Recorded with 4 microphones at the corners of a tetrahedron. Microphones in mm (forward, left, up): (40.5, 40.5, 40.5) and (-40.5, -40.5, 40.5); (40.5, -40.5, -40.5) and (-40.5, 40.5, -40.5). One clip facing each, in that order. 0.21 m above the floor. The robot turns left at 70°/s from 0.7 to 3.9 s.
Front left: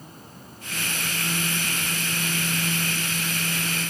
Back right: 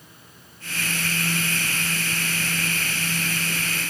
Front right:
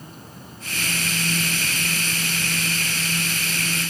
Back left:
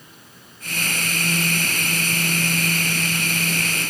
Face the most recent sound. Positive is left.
turn(degrees=135)